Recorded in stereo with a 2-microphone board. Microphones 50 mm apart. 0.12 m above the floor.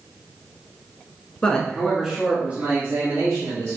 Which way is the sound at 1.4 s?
20° left (ahead or behind).